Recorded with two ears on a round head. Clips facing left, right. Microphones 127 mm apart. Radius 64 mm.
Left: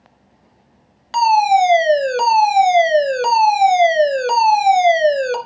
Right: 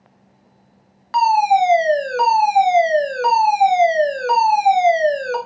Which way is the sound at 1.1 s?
25° left (ahead or behind).